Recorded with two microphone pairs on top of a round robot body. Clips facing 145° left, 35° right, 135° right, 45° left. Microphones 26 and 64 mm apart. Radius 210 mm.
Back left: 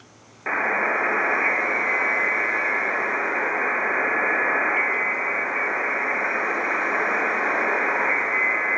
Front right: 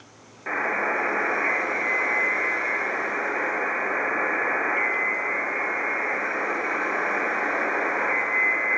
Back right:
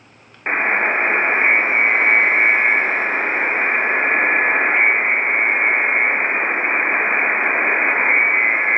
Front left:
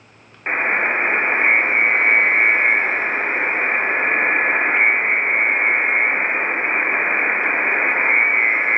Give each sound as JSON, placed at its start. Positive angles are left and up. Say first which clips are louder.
{"t": 0.5, "sound": "a buzzer", "louder": "back left 3 dB, back right 1 dB", "azimuth_deg": 180, "distance_m": 0.7}